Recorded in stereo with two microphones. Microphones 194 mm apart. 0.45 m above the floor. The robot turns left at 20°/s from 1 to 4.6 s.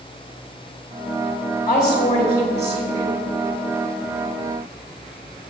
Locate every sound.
1.7 s a woman speaking: 40° left (ahead or behind), 1.6 m; by 3.2 s 35° left (ahead or behind), 1.6 m